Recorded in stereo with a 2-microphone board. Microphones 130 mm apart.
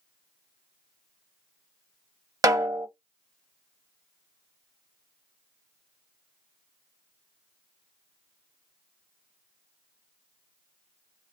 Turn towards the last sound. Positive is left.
turn(degrees=-25)  # may be behind; listen again after turning